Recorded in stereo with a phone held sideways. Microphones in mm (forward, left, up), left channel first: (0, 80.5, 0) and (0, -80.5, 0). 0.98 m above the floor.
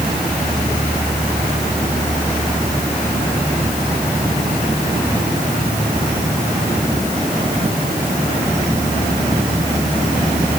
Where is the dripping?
I don't hear dripping.